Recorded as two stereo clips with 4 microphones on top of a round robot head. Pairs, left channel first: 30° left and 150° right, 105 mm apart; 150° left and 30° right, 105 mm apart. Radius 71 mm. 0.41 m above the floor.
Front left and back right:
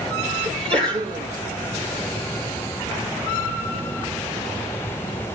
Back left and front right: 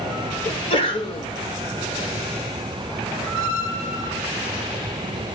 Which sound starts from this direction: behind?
A sneeze, at 0.5 s.